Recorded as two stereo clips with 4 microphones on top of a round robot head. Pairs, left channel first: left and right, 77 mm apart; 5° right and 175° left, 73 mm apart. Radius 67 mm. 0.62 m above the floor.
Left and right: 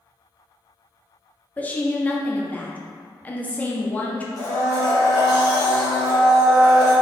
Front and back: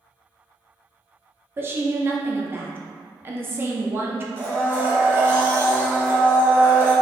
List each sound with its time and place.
1.6 s a woman speaking: 145° left, 0.8 m
4.4 s a blender: 120° left, 1.4 m